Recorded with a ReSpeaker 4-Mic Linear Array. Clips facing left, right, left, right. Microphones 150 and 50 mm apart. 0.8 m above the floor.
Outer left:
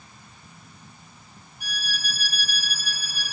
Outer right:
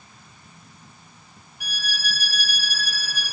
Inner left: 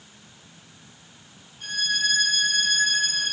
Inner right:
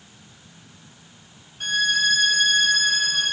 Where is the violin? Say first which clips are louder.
Outer right 2 dB, inner right 5 dB; 85° right, 2.5 m.